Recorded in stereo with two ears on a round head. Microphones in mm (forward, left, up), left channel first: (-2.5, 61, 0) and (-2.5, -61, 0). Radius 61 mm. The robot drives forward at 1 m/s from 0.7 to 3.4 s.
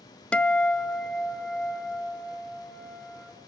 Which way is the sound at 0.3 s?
10° left (ahead or behind).